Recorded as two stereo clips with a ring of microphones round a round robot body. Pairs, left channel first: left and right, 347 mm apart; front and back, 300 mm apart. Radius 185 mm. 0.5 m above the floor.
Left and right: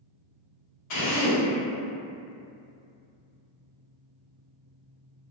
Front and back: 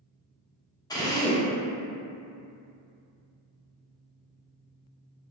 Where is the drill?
75° left, 0.8 m.